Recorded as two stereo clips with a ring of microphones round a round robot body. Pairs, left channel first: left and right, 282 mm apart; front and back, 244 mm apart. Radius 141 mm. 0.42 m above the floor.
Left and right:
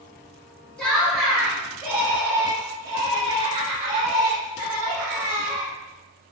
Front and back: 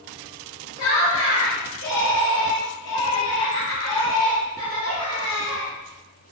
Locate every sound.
0.8 s laughter: 5° left, 4 m; by 5.7 s 50° right, 3 m